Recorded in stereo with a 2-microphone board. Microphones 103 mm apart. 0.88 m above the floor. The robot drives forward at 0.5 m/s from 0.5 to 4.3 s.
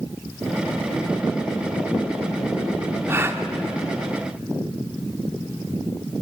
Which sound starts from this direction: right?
A gasp, at 3.1 s.